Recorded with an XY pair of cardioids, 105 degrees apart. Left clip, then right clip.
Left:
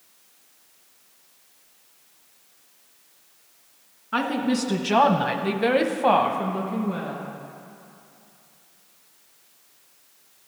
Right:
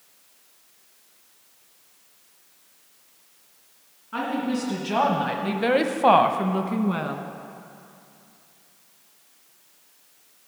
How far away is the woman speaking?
About 1.8 m.